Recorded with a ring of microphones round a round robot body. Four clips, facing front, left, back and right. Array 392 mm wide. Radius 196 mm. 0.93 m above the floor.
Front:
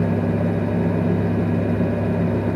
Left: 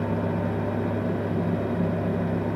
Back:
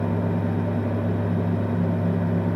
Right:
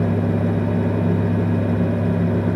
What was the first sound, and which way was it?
Only background noise.